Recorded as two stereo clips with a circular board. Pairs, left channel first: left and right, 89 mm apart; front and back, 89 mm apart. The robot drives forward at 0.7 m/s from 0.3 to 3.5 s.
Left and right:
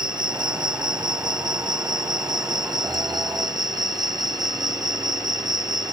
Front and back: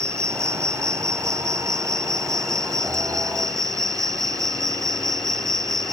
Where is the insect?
125° right; by 5.9 s 130° right.